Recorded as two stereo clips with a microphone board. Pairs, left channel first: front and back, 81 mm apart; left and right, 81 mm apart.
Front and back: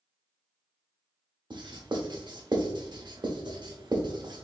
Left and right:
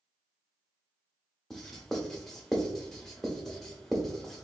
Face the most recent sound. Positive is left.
turn(degrees=175)